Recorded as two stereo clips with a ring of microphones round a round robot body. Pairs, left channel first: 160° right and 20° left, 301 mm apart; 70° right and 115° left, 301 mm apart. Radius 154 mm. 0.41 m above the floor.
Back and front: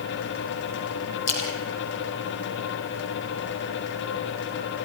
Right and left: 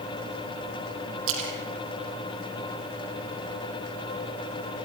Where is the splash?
160° left, 4.5 m.